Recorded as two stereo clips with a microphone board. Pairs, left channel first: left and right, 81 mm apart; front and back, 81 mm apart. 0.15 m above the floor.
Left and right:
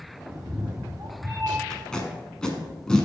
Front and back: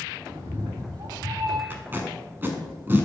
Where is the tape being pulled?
160° left, 1.3 m.